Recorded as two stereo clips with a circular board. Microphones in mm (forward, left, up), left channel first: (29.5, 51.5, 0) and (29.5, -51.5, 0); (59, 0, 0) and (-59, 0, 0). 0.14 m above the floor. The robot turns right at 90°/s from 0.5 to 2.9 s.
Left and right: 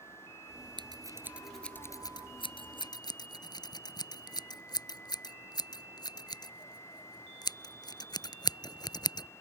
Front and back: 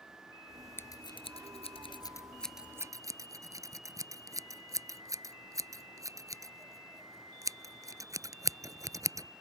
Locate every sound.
0.8 s scissors: 65° right; by 9.3 s 125° left